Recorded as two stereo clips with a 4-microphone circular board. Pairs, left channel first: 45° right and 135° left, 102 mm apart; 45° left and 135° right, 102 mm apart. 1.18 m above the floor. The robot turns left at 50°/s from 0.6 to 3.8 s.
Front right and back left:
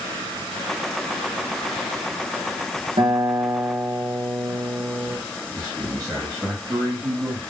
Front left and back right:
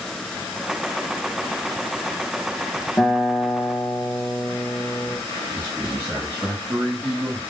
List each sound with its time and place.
3.0 s a guitar: 120° left, 0.9 m; by 5.2 s 80° left, 0.9 m
5.5 s a man speaking: 175° left, 0.9 m